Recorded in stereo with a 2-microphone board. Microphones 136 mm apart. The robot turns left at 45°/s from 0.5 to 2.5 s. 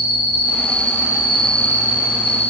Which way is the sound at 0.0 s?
140° right.